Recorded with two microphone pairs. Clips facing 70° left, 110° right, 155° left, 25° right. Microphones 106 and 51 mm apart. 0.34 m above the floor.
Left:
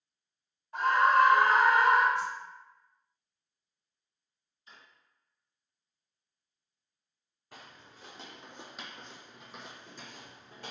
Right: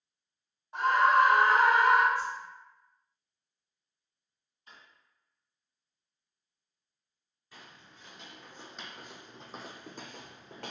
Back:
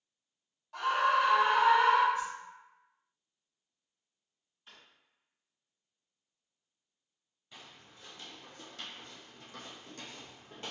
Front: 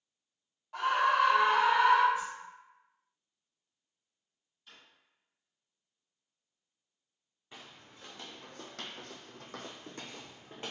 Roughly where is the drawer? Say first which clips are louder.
Right 1 dB, even; behind right.